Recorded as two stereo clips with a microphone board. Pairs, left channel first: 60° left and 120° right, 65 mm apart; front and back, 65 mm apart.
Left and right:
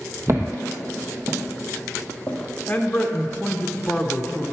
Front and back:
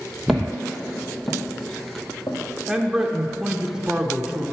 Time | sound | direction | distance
0.3 | footsteps | 90° right | 1.5 m
2.7 | a man speaking | 110° left | 0.7 m